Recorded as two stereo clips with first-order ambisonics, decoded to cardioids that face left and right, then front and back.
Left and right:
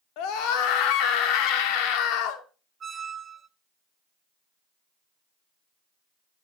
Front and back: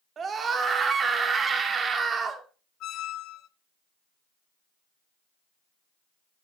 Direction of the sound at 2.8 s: 25° right.